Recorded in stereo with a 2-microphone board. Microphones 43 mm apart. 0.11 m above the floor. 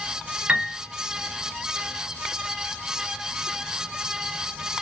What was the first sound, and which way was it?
A piano, 35° right (ahead or behind).